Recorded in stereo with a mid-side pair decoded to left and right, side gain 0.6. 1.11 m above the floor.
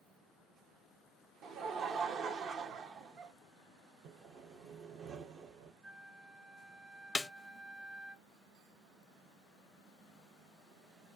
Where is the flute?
25° right, 2.0 m.